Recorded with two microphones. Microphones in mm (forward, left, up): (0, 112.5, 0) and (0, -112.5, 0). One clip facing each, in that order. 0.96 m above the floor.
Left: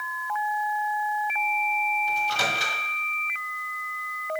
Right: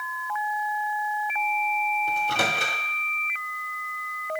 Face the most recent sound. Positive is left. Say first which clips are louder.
# right 2 dB
turn(degrees=-55)  # may be behind; listen again after turning